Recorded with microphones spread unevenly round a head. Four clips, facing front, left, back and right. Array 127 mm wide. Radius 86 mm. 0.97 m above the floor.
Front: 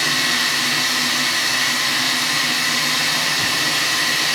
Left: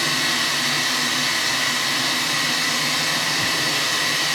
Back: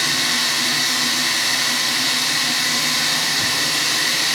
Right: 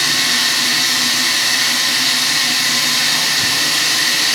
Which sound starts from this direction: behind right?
Running water, at 0.0 s.